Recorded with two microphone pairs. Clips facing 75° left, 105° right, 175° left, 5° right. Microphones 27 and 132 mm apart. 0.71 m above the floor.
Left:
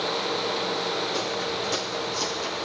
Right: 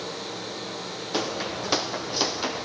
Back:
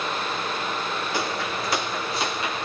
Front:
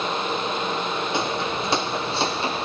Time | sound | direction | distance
1.1 | footsteps | 70° right | 3 m